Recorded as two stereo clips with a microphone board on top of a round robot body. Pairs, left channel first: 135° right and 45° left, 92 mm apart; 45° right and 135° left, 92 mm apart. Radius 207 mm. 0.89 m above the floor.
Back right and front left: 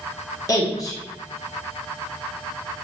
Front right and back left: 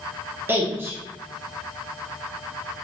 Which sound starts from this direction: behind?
A woman speaking, at 0.5 s.